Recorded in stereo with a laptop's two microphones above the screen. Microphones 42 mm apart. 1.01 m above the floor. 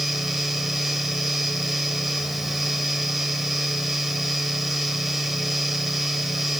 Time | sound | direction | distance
0.0 | a fan | 5° right (ahead or behind) | 3 m